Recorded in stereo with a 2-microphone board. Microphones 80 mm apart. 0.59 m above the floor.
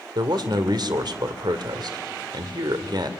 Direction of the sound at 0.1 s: 60° right (ahead or behind).